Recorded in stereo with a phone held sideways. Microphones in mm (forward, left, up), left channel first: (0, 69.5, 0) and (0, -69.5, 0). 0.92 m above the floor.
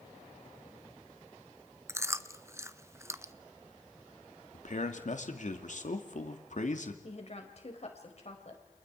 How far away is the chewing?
About 0.7 m.